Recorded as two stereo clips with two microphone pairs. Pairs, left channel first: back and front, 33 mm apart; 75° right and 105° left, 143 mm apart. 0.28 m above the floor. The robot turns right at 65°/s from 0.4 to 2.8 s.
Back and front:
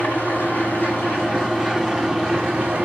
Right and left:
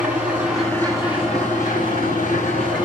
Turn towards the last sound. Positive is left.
turn(degrees=-20)